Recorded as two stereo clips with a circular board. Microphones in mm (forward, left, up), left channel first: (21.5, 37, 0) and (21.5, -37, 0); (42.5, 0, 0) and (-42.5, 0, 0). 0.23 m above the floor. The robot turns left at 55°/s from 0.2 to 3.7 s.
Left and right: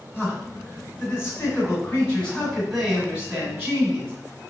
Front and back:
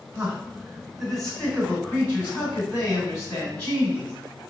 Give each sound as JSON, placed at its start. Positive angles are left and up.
{"t": 0.1, "sound": "a man speaking", "azimuth_deg": 140, "distance_m": 1.6}